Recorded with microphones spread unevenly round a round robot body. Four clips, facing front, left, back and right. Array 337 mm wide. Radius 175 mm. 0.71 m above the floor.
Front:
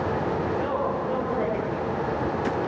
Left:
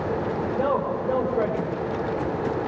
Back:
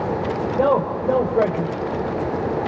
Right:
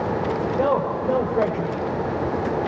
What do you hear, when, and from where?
0.6 s a man speaking: 155° right, 4 m